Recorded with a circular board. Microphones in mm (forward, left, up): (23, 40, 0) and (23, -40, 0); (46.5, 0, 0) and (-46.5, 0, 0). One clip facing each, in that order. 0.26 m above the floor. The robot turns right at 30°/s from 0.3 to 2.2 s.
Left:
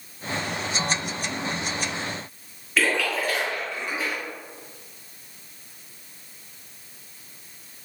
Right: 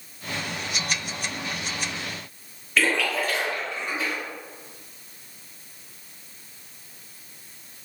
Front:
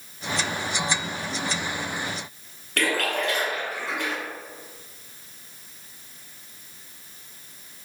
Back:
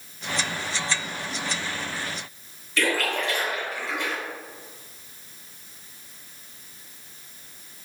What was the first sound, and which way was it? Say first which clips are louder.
A splash: even, even; 10° left.